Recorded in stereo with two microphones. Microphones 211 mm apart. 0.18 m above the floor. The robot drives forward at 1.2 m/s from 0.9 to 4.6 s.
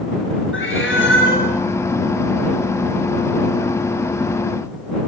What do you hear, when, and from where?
0.5 s a cat meowing: 80° left, 8 m; by 1.5 s 75° left (ahead or behind), 8 m